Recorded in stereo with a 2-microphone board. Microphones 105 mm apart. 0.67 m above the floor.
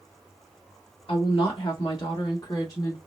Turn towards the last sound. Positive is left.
turn(degrees=30)  # may be behind; listen again after turning